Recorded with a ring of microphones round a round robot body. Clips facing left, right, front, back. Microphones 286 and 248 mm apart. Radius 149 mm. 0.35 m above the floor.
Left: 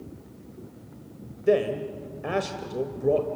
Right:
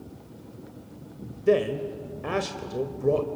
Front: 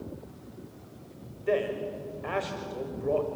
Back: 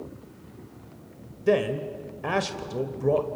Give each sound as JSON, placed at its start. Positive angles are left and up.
{"t": 1.5, "sound": "a man speaking", "azimuth_deg": -170, "distance_m": 1.4}